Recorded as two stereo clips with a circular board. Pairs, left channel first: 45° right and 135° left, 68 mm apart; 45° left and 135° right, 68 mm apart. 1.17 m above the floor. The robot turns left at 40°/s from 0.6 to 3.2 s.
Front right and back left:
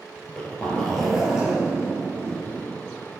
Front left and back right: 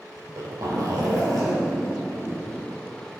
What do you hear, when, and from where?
0.2 s a zipper: 115° right, 3.5 m; by 2.7 s 160° left, 3.5 m